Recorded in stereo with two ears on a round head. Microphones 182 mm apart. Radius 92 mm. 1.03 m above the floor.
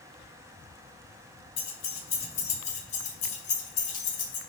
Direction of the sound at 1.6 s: 30° left (ahead or behind).